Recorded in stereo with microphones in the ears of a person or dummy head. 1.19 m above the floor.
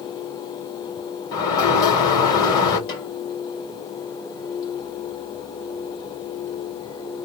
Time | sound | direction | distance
1.3 | a sliding door | 25° left (ahead or behind) | 2 m
2.9 | a snare drum | 30° left (ahead or behind) | 2.5 m